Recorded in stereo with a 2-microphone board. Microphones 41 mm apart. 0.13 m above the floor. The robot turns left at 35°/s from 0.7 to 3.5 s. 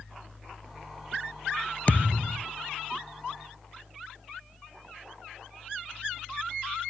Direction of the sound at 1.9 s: 40° left (ahead or behind).